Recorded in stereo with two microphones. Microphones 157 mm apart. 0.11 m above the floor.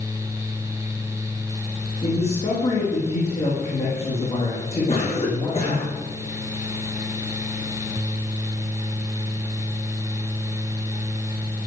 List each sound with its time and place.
2.0 s a man speaking: 40° left (ahead or behind), 7.5 m
4.9 s a cough: 40° left (ahead or behind), 7 m